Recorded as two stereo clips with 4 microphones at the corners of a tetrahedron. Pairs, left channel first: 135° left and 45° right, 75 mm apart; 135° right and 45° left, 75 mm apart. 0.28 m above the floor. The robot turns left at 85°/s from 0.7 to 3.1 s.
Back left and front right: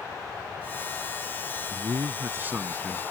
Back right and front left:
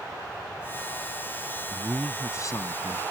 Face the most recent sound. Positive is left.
turn(degrees=-160)